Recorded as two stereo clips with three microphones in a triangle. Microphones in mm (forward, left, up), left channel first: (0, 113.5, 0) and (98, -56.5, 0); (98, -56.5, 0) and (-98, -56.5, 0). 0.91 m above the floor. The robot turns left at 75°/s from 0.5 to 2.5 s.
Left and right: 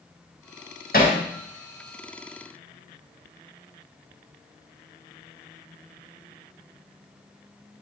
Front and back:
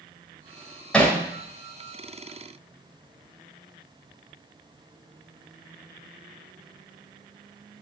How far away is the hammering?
About 2.5 m.